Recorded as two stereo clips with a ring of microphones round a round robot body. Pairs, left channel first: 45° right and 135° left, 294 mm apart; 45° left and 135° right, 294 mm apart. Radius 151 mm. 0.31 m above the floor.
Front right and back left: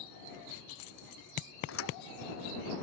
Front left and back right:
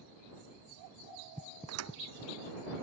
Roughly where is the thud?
Right.